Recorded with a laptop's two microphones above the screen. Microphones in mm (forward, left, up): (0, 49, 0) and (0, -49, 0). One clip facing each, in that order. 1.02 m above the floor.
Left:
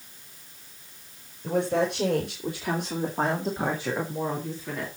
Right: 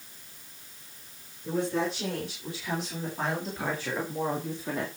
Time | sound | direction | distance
1.4 | a woman speaking | 70° left (ahead or behind) | 4.5 m